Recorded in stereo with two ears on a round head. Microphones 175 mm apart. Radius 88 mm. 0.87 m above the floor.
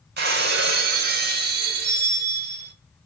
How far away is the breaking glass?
About 0.9 m.